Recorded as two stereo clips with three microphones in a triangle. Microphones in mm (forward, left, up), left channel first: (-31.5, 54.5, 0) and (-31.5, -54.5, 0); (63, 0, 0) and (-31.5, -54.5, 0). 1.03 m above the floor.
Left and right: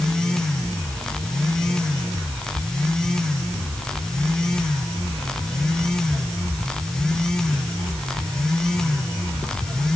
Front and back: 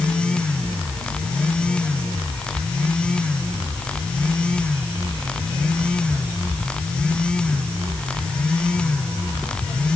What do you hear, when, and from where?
Only background noise.